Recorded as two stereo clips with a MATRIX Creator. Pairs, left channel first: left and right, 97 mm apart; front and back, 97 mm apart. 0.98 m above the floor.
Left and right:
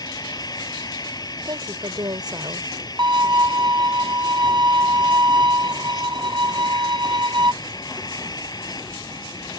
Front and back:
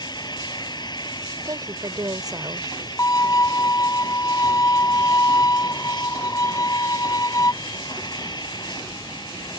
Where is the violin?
50° right.